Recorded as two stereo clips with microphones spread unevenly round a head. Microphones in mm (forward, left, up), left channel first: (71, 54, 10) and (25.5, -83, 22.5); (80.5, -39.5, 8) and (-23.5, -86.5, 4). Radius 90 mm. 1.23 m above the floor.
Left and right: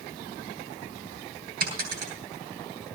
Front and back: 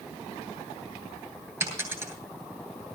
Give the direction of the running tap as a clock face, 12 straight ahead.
No running tap in this recording.